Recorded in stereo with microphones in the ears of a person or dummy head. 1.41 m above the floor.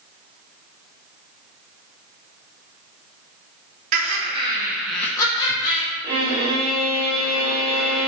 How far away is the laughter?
About 0.8 m.